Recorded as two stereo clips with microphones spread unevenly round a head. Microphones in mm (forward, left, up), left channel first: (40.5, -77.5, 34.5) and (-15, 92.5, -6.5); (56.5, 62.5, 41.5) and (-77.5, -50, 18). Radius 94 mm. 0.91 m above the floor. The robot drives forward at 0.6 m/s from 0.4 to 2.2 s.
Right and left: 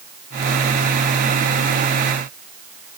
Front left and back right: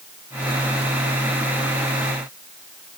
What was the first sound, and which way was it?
Only background noise.